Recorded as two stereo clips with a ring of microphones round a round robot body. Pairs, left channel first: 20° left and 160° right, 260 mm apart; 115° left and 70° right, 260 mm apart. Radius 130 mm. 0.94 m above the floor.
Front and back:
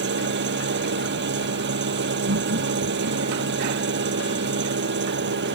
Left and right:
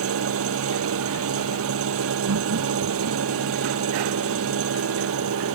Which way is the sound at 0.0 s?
105° right.